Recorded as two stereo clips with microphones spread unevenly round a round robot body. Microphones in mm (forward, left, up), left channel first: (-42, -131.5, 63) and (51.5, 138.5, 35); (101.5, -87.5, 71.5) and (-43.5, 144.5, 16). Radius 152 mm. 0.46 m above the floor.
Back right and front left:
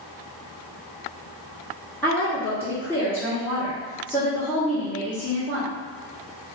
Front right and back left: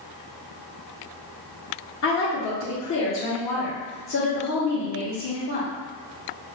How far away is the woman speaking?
About 1.1 m.